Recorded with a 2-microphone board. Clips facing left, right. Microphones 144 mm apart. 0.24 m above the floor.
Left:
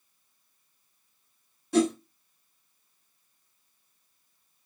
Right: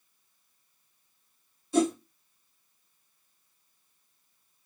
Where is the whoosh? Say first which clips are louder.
Left 1 dB; 70° left (ahead or behind), 1.2 m.